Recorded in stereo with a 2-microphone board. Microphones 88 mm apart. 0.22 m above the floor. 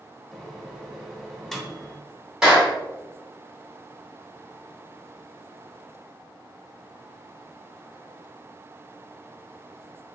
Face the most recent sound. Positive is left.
turn(degrees=-5)  # may be behind; listen again after turning